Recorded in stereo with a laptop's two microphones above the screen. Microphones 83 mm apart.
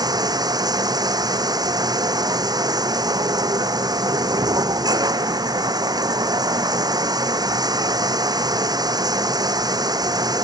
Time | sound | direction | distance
0.0 | running water | 55° right (ahead or behind) | ?